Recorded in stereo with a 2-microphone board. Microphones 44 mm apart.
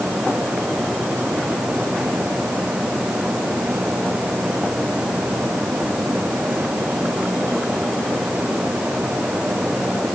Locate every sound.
Only background noise.